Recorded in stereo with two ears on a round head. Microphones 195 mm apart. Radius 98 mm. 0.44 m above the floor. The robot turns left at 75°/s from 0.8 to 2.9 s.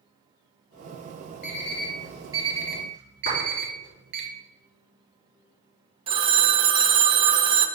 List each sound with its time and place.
1.4 s an alarm clock: 50° left (ahead or behind), 1.5 m; by 4.2 s 60° right (ahead or behind), 1.5 m
3.2 s a clap: 30° left (ahead or behind), 3.5 m
6.1 s a phone ringing: 25° right (ahead or behind), 0.5 m